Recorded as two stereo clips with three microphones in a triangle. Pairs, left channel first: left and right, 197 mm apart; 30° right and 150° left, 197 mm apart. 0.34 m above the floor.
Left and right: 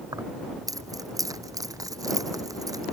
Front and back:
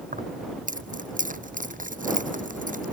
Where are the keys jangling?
160° right.